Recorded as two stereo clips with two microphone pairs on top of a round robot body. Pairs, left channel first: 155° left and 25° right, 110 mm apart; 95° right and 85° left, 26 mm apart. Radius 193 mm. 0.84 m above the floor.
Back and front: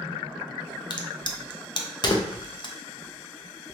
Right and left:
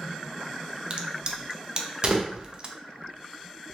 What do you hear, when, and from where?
0.9 s a crack: 140° left, 0.6 m